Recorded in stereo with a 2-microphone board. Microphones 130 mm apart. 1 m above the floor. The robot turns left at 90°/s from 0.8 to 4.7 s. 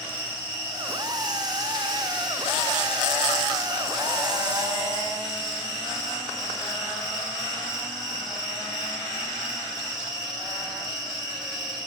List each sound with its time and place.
0.0 s an insect: 40° right, 1.2 m; by 11.9 s 35° right, 1.2 m